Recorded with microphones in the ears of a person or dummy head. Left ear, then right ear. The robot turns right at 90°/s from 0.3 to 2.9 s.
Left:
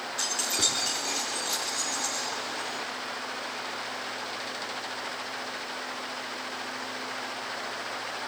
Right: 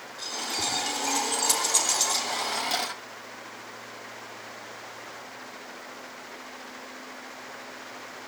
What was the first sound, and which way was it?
Keys jangling, 40° left (ahead or behind).